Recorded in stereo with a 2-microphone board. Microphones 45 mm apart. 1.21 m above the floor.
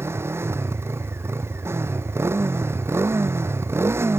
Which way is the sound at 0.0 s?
65° right (ahead or behind).